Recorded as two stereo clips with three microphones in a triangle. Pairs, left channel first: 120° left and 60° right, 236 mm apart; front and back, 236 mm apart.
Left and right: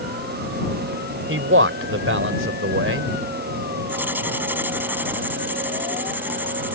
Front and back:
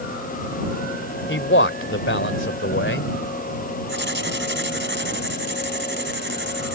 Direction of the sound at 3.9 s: 140° right.